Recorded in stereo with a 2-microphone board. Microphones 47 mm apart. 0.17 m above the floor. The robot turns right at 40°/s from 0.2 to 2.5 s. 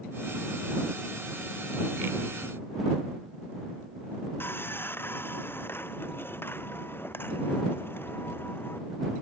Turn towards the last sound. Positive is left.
turn(degrees=45)  # may be behind; listen again after turning